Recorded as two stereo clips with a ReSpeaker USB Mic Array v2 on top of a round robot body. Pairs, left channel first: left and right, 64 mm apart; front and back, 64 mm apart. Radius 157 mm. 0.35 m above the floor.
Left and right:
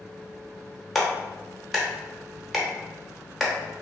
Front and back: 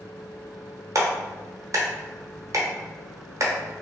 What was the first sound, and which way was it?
A clap, straight behind.